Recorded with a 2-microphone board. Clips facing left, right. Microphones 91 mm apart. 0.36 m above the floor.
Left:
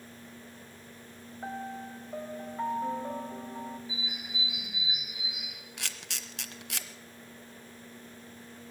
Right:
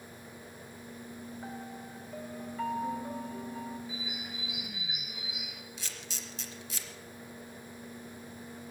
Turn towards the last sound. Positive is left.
turn(degrees=70)  # may be behind; listen again after turning